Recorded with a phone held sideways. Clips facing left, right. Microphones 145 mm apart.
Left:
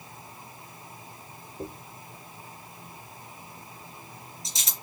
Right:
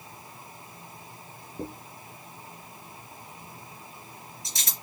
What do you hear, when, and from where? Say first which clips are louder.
1.6 s a dropped coin: right 1 dB; 65° right (ahead or behind), 3 m